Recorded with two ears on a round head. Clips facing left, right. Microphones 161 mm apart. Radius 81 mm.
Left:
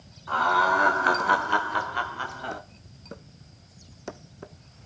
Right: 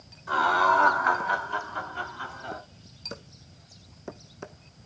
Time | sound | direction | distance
0.3 | laughter | 10° right (ahead or behind) | 1.4 m